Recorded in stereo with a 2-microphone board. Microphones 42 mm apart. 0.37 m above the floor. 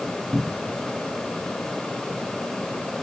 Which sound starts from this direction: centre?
A cupboard door, at 0.3 s.